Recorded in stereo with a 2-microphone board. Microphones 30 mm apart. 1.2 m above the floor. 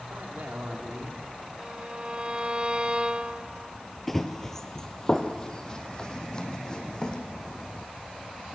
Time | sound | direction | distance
0.1 | a man speaking | 80° right | 3 m
1.6 | a violin | 35° right (ahead or behind) | 1.1 m
4.1 | running footsteps | 5° left (ahead or behind) | 1.5 m